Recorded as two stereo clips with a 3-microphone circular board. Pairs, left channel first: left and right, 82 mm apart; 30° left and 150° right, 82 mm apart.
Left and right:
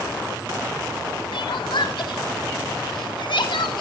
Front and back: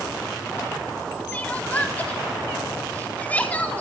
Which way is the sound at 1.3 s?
100° left.